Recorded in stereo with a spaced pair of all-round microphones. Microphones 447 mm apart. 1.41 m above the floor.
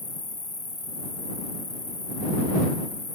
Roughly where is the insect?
Left.